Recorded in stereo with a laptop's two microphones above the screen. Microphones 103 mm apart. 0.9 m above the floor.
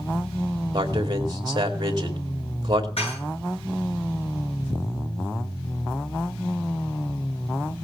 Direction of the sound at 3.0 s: 70° left (ahead or behind).